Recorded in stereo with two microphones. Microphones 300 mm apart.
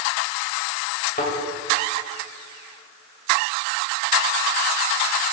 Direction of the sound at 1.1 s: 35° left (ahead or behind).